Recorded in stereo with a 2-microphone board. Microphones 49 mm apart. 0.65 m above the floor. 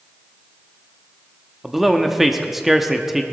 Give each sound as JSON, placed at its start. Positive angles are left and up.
{"t": 1.6, "sound": "a man speaking", "side_deg": -5, "distance_m": 1.0}